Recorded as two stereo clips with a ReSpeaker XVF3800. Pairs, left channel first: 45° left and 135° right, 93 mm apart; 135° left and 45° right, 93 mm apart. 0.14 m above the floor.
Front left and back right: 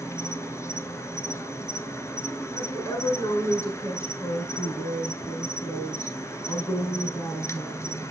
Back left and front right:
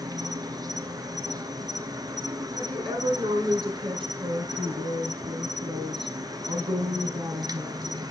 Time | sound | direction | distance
0.0 | an insect | 10° right | 0.8 m
2.5 | a woman speaking | 15° right | 4.5 m